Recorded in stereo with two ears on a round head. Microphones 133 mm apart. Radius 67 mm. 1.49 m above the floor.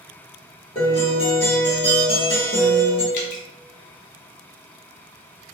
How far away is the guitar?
About 1.4 m.